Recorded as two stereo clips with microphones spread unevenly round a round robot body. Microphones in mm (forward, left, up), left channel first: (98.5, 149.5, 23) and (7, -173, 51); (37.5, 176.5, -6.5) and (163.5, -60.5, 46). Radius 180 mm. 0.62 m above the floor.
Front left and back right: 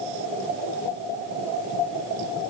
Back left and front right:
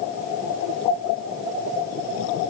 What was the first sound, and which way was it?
Only background noise.